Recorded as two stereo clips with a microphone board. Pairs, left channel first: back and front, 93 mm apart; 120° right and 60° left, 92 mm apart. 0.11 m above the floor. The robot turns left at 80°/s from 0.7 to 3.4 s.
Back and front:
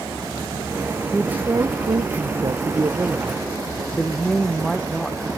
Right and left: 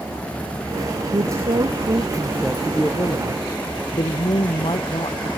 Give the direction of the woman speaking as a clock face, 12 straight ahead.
9 o'clock.